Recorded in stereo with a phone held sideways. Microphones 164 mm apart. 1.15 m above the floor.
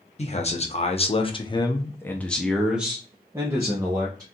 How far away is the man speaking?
About 1.0 m.